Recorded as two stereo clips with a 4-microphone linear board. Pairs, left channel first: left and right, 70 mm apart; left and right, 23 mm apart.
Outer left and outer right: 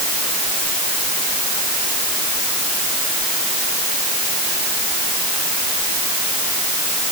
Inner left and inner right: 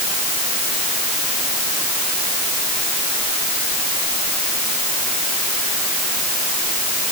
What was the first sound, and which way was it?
Only background noise.